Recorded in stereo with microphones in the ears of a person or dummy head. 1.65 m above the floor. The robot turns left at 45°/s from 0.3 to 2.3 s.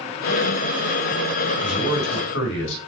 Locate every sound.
1.6 s a man speaking: 145° left, 4 m; by 2.8 s 115° left, 4 m